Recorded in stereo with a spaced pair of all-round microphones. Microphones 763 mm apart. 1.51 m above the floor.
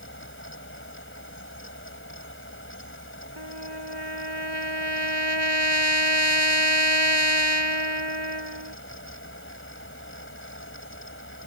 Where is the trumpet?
30° right (ahead or behind).